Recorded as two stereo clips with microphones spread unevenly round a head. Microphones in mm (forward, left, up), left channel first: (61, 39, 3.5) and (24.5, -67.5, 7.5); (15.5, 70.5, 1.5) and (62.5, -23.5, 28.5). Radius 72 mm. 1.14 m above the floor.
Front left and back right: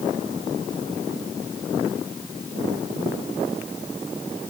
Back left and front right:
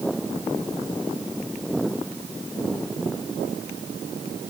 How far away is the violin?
No violin in this recording.